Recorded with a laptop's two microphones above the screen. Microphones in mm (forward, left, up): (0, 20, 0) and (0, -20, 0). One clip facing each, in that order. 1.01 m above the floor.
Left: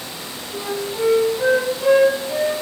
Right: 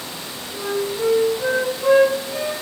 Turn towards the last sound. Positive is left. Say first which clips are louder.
# right 1 dB
turn(degrees=35)  # may be behind; listen again after turning